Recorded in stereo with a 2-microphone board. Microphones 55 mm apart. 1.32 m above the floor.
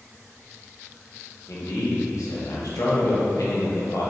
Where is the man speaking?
85° left, 0.8 m.